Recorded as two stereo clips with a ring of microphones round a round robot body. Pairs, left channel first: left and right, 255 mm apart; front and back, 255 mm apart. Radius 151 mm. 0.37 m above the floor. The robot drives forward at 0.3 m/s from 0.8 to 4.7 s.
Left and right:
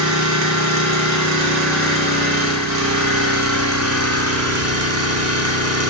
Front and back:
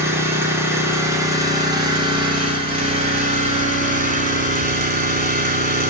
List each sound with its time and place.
0.0 s an engine running: 100° right, 2.5 m; by 5.9 s 120° right, 3 m